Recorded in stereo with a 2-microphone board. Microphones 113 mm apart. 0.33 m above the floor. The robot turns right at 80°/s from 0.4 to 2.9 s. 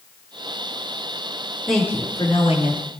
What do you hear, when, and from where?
1.7 s a woman speaking: straight ahead, 5.5 m; by 2.8 s 90° left, 5.5 m